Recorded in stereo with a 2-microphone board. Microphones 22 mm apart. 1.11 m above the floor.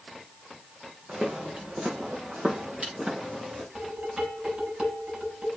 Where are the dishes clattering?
60° right (ahead or behind), 6 m.